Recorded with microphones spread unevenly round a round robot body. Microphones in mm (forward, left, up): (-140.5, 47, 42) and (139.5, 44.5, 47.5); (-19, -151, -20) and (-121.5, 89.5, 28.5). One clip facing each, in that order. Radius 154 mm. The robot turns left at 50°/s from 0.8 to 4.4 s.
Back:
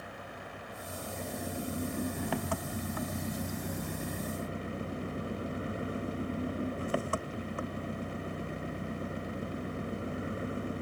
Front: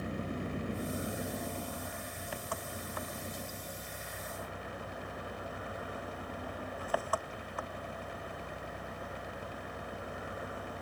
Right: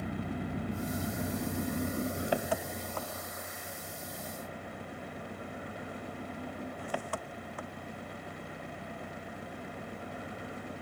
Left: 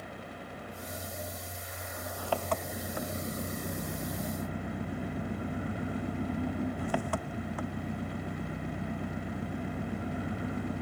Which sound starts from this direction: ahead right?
An engine running, at 0.0 s.